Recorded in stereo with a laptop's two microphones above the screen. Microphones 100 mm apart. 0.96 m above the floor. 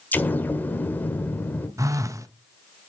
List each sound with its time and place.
0.1 s an explosion: 20° left (ahead or behind), 1.6 m
1.8 s a phone buzzing: 30° right (ahead or behind), 0.9 m